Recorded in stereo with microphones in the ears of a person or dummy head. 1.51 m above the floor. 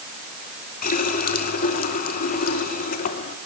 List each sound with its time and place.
0.8 s a running tap: 55° left (ahead or behind), 2.5 m